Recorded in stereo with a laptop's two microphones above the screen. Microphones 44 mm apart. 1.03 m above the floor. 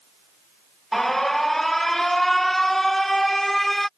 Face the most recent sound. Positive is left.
turn(degrees=5)  # may be behind; listen again after turning